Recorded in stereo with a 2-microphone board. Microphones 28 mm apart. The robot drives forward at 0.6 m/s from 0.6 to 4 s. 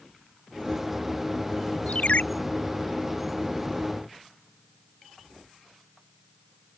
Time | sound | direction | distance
1.9 | a ringtone | 55° left (ahead or behind) | ?